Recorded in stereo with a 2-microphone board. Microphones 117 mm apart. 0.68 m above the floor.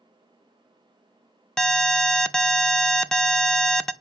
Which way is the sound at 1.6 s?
5° left (ahead or behind).